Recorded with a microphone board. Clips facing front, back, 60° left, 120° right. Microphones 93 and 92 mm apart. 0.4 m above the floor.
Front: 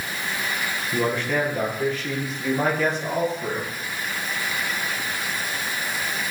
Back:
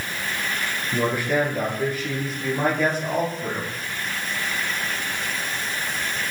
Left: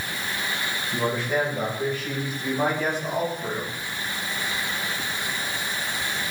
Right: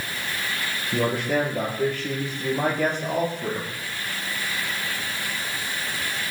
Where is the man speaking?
100° right, 9 m; by 3.7 s 95° right, 10 m.